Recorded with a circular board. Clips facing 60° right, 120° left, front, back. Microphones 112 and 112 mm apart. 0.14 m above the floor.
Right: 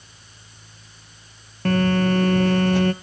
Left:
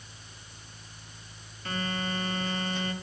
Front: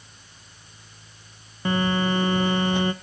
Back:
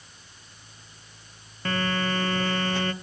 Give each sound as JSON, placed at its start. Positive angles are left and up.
{"t": 1.6, "sound": "a phone buzzing", "azimuth_deg": -75, "distance_m": 0.5}